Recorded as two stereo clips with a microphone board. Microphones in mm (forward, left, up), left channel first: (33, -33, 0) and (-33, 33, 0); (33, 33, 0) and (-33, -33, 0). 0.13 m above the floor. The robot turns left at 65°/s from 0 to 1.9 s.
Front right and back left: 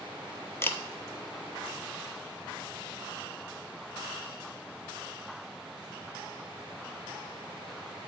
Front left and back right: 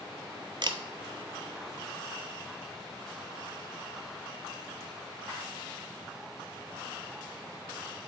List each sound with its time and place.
0.6 s a camera shutter: 105° right, 0.5 m; by 0.8 s 115° right, 0.5 m